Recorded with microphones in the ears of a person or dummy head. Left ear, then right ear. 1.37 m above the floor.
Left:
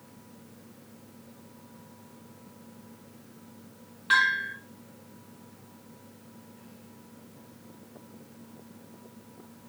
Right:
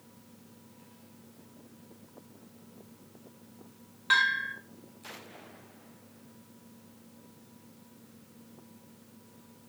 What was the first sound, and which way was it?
A bell, 25° right (ahead or behind).